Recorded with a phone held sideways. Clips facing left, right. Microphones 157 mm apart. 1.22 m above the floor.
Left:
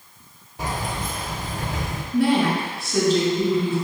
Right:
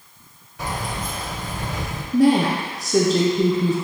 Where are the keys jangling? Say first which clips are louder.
Even; 30° left (ahead or behind), 1.9 m.